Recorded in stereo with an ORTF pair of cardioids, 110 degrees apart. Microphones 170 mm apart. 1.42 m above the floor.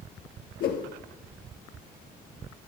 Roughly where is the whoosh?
Left.